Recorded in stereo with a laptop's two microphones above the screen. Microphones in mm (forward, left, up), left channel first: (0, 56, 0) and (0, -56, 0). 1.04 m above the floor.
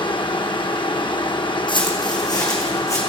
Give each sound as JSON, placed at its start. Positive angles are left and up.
{"t": 0.0, "sound": "a fan", "side_deg": 45, "distance_m": 0.7}
{"t": 1.7, "sound": "footsteps", "side_deg": 45, "distance_m": 2.5}